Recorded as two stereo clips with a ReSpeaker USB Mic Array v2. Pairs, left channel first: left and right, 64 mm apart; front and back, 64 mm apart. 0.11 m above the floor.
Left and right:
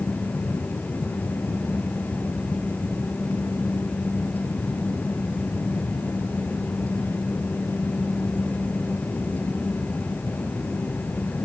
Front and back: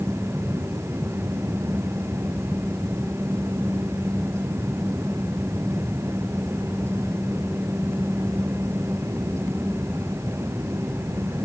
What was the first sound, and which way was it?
Only background noise.